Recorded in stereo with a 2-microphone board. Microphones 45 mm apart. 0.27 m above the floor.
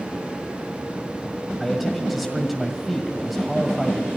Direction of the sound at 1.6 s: Centre (ahead or behind).